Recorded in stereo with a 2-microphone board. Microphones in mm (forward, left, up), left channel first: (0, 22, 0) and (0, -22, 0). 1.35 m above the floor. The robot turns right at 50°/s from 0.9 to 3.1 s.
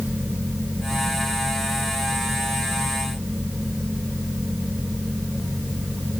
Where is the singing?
No singing in this recording.